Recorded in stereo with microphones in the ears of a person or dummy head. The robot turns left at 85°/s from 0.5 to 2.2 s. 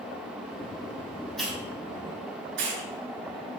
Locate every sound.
1.4 s a hiss: 5° left (ahead or behind), 5 m; by 2.8 s 65° right (ahead or behind), 5 m